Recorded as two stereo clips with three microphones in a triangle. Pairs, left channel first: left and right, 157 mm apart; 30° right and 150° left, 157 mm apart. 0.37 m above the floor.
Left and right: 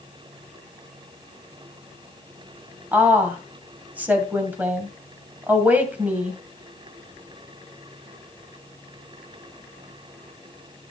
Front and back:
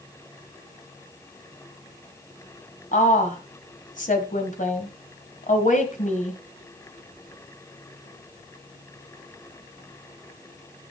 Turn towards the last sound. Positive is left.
turn(degrees=-10)